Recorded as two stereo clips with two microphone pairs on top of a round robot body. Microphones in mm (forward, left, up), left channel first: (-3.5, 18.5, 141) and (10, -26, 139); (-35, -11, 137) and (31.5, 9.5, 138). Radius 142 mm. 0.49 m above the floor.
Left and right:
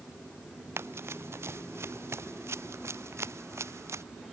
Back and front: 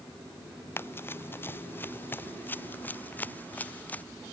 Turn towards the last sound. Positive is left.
turn(degrees=-95)